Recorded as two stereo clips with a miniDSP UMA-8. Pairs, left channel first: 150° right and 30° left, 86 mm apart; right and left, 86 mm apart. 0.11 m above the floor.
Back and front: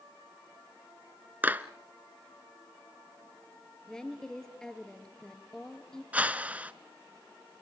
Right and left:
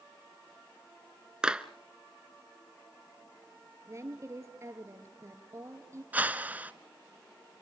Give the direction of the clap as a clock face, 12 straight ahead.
11 o'clock.